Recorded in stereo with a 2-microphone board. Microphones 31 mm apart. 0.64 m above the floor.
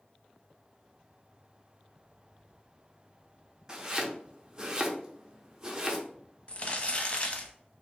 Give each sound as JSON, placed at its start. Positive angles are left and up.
{"t": 3.7, "sound": "chopping", "side_deg": -20, "distance_m": 0.6}
{"t": 6.5, "sound": "crumpling", "side_deg": 40, "distance_m": 0.6}